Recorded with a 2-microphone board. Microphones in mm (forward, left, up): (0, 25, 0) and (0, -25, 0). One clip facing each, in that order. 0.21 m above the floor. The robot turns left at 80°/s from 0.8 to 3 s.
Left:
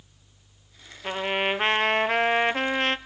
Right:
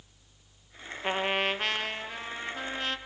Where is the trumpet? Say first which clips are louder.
Left 2 dB; 165° right, 0.6 m; by 3.0 s 45° left, 0.6 m.